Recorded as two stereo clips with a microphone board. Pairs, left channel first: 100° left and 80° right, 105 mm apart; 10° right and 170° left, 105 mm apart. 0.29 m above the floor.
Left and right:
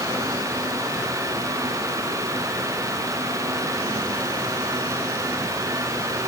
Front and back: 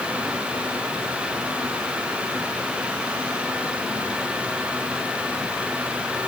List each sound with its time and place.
Only background noise.